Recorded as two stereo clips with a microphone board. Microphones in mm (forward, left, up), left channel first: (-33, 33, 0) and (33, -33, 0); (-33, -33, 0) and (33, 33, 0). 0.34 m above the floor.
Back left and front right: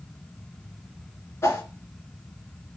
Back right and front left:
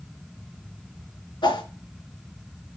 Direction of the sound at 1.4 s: 165° right.